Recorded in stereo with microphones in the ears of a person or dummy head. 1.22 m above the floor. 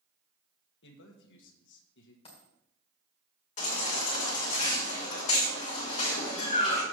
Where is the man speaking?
60° left (ahead or behind), 1.3 m.